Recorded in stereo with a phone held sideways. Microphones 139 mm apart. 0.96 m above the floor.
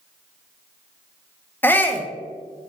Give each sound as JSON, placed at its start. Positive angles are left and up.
{"t": 1.6, "sound": "a shout", "side_deg": 15, "distance_m": 0.7}